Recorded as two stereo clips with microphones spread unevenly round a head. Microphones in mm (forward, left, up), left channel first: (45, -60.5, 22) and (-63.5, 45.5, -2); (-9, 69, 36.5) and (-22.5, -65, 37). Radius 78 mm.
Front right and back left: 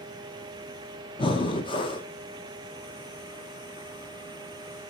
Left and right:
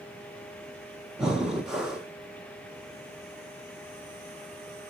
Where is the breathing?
10° right, 1.1 m.